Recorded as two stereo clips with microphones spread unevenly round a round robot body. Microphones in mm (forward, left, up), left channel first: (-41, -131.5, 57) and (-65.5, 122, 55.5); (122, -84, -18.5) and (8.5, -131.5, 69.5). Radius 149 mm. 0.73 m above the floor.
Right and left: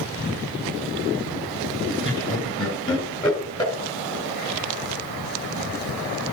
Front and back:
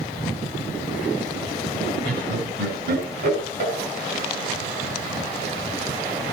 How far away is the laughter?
About 5.5 m.